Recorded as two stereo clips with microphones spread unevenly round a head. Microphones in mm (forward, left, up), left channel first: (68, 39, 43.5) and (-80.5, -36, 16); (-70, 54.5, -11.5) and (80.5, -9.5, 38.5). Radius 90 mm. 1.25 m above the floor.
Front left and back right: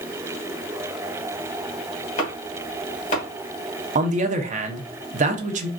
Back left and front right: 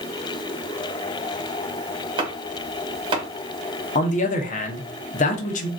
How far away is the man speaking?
About 0.8 m.